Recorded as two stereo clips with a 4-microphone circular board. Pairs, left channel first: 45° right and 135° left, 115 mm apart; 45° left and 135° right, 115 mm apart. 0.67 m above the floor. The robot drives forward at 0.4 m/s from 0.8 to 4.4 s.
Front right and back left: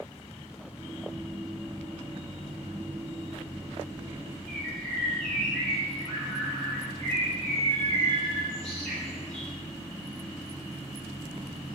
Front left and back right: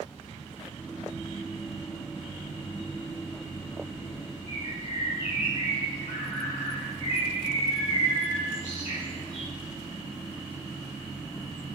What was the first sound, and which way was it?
A bird, 40° left.